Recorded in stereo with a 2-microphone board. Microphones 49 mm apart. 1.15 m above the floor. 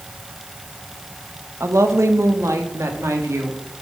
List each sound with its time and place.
1.6 s a woman speaking: 70° right (ahead or behind), 1.4 m; by 3.6 s 75° right (ahead or behind), 3 m